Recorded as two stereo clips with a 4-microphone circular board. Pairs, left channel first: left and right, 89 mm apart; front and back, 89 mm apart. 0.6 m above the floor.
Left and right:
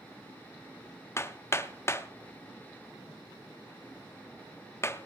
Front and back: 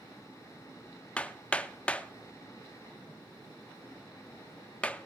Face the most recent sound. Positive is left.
turn(degrees=65)